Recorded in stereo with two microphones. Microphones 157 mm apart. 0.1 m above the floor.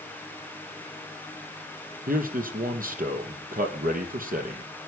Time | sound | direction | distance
2.1 | a man speaking | 65° right (ahead or behind) | 2.5 m